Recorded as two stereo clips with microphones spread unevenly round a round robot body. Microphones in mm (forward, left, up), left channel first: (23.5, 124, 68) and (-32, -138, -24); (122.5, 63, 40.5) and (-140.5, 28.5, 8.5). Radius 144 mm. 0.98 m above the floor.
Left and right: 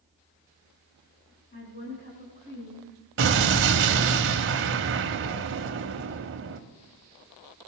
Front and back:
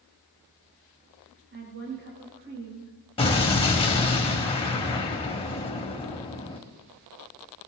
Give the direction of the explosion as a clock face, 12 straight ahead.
2 o'clock.